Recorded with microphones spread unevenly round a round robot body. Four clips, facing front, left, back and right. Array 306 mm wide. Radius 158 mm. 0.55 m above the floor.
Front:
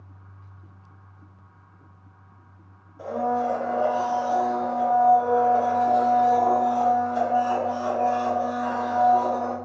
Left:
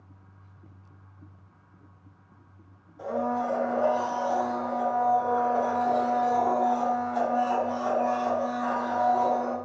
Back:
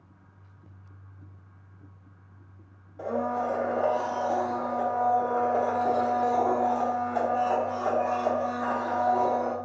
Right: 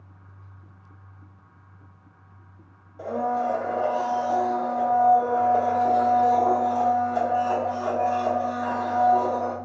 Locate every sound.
3.0 s a blender: 140° right, 0.8 m